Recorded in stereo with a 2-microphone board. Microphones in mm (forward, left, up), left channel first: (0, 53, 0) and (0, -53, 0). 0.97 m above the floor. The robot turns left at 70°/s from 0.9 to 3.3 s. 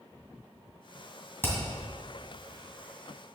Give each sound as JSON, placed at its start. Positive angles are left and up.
{"t": 1.4, "sound": "hammering", "side_deg": 20, "distance_m": 2.5}